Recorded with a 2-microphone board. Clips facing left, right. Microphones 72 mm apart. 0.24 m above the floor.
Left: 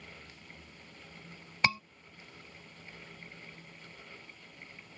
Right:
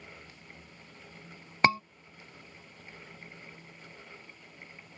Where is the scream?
35° right (ahead or behind).